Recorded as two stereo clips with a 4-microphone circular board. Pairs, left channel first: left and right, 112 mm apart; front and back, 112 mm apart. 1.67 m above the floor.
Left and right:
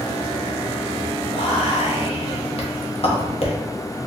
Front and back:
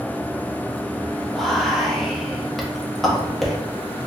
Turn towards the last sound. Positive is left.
turn(degrees=90)